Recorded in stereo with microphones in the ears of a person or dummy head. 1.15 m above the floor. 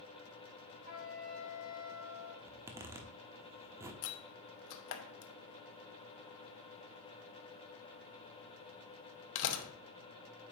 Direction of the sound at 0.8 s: 50° left (ahead or behind).